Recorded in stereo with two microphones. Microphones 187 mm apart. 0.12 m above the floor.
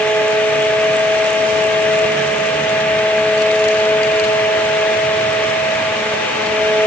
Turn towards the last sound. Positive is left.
No sound to turn to.